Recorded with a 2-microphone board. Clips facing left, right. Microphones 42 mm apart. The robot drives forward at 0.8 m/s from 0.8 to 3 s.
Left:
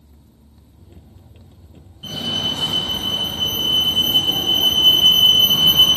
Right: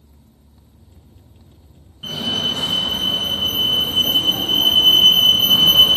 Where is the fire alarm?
25° right (ahead or behind), 3 m; by 6.0 s 30° right (ahead or behind), 2.5 m.